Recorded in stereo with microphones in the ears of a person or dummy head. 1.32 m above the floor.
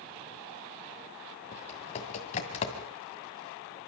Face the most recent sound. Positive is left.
turn(degrees=35)  # may be behind; listen again after turning